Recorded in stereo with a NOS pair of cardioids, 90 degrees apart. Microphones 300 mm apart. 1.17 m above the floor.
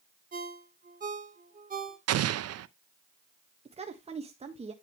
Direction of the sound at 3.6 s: 20° right.